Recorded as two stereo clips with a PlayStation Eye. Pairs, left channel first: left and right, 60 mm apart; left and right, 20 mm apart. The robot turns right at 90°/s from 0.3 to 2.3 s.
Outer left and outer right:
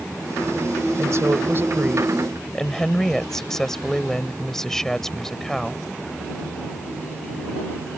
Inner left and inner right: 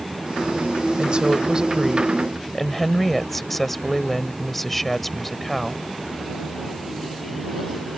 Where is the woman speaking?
110° right; by 5.8 s 10° left.